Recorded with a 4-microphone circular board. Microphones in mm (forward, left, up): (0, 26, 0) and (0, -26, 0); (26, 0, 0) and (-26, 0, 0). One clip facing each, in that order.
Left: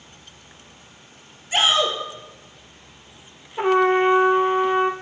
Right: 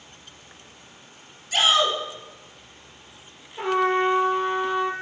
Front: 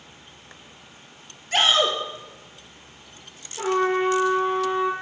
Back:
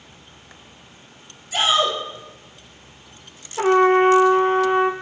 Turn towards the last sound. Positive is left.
turn(degrees=145)